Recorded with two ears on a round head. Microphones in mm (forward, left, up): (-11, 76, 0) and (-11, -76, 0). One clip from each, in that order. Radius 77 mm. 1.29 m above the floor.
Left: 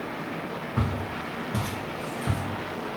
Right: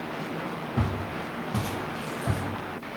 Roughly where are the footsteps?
Left.